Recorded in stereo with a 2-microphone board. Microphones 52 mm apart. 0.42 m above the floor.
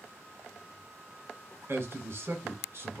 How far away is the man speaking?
About 1.4 m.